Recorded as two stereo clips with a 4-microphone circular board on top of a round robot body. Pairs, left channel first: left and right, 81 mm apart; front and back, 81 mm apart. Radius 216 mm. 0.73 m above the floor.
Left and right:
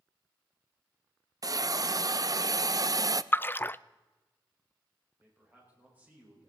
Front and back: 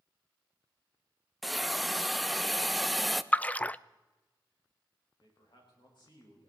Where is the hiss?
90° right, 0.7 m.